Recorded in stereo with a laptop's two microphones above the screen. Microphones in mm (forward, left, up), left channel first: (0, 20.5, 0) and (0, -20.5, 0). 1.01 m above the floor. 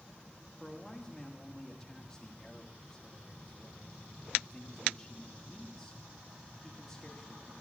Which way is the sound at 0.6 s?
15° left (ahead or behind).